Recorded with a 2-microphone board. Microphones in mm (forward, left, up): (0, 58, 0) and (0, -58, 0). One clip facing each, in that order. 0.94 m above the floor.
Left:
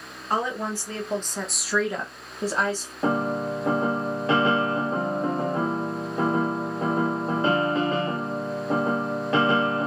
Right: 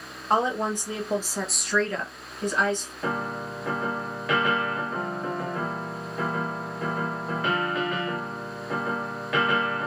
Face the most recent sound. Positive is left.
turn(degrees=30)  # may be behind; listen again after turning